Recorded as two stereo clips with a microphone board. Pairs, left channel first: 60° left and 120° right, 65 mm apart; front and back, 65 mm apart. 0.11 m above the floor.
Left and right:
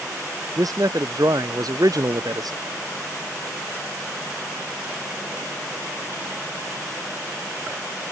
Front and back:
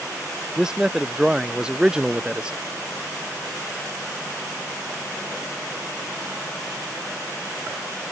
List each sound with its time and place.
0.6 s a man speaking: 100° right; by 2.6 s 105° right